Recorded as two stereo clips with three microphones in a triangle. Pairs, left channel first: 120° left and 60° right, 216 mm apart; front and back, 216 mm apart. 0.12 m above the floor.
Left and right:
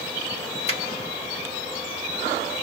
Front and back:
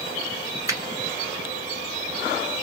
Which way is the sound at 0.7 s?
125° left.